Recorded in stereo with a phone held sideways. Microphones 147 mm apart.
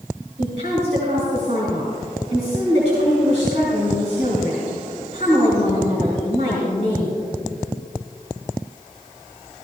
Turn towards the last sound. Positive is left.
turn(degrees=-60)  # may be behind; listen again after turning